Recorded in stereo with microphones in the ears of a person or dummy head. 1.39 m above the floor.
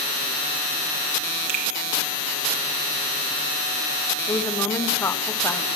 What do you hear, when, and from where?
1.5 s a finger snap: 50° right (ahead or behind), 2 m
4.3 s a woman speaking: 15° left (ahead or behind), 1.2 m